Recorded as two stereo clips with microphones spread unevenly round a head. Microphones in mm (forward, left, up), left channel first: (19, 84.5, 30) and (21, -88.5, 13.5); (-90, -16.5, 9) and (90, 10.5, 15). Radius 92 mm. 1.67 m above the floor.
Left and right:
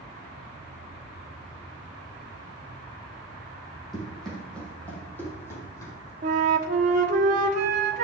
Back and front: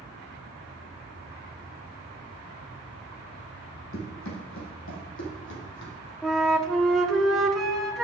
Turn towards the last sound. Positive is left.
turn(degrees=-80)